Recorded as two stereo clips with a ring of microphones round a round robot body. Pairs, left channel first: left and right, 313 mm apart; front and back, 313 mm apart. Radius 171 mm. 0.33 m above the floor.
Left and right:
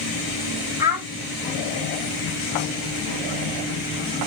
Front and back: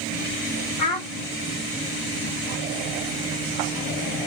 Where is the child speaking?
10° right, 1.6 m.